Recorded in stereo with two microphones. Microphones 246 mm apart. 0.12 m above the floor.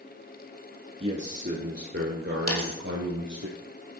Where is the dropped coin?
75° left (ahead or behind), 1.4 m.